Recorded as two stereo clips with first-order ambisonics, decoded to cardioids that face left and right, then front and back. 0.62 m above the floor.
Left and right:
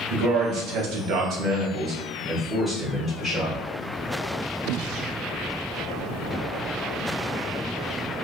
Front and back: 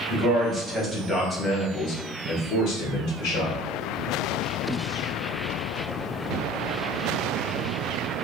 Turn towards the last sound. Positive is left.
turn(degrees=10)